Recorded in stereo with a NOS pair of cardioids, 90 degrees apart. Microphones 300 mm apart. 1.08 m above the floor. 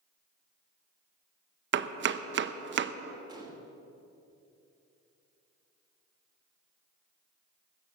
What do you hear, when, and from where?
1.7 s chopping: 40° right, 0.7 m
3.3 s a gunshot: 15° right, 3 m